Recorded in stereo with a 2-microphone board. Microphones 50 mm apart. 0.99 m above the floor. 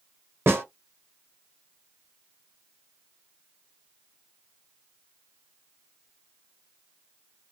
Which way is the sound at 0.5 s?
50° right (ahead or behind).